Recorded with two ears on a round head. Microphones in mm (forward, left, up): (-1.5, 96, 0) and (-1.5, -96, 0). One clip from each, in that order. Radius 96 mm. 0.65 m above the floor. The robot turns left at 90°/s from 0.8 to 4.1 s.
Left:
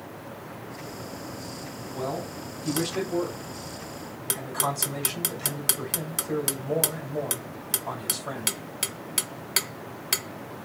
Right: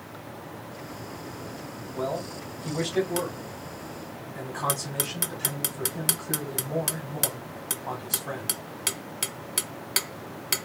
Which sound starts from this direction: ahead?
A man speaking, at 1.9 s.